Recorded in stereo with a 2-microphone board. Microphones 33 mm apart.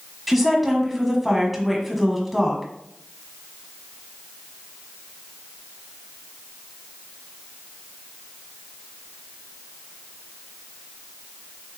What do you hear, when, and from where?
0.3 s a woman speaking: centre (ahead or behind), 1.2 m